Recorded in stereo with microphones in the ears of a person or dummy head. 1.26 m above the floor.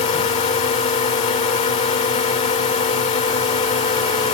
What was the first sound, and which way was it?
A drone, 25° left (ahead or behind).